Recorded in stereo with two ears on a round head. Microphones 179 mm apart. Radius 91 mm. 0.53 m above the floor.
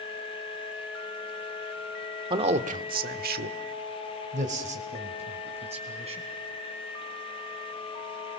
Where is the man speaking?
25° right (ahead or behind), 1.5 m; by 6.2 s 35° right (ahead or behind), 5 m.